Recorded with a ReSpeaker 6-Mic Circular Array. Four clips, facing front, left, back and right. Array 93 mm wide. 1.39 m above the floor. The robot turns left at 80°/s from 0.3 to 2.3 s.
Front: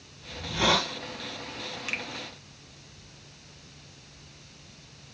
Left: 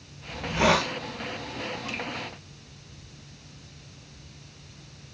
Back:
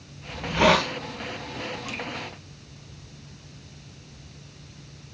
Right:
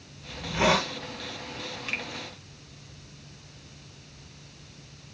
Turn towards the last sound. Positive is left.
turn(degrees=-75)